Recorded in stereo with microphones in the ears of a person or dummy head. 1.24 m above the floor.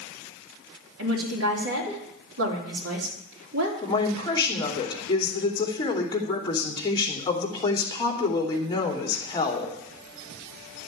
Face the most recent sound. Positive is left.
turn(degrees=25)  # may be behind; listen again after turning